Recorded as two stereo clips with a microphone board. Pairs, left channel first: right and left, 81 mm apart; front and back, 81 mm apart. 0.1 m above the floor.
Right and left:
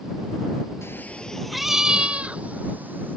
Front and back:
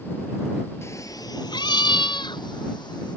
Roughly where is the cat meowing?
Ahead right.